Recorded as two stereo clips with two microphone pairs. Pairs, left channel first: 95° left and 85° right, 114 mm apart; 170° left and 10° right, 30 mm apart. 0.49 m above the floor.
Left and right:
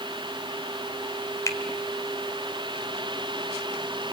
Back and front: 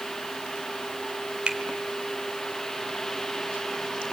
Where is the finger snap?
35° left, 1.7 m.